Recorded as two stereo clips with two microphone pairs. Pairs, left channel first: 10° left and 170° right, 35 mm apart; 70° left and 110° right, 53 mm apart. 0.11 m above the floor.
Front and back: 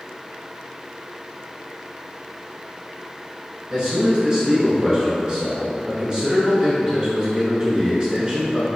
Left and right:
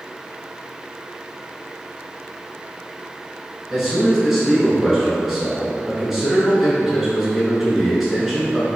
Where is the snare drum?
I don't hear a snare drum.